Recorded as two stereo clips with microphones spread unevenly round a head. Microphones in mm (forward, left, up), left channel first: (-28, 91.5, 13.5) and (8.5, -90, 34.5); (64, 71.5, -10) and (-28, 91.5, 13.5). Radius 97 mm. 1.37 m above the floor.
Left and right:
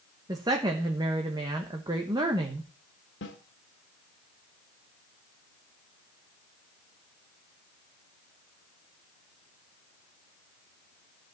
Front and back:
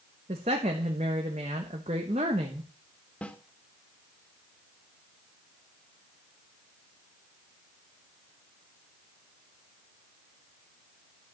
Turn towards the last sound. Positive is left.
turn(degrees=70)